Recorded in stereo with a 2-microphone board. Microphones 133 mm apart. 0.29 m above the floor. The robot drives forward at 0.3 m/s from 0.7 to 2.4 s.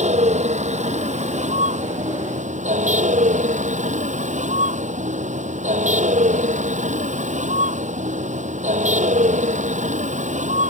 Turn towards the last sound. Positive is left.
turn(degrees=-65)  # may be behind; listen again after turning